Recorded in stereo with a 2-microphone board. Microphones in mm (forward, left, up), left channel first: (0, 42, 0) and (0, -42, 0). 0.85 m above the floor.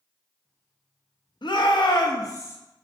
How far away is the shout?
About 0.7 m.